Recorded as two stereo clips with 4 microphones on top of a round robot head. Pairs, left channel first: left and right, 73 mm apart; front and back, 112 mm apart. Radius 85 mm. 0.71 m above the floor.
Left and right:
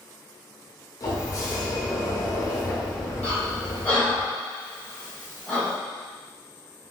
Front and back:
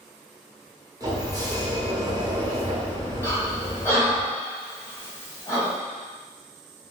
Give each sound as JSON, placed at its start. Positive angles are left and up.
{"t": 1.0, "sound": "a sliding door", "azimuth_deg": 125, "distance_m": 1.1}
{"t": 3.2, "sound": "breathing", "azimuth_deg": 40, "distance_m": 1.2}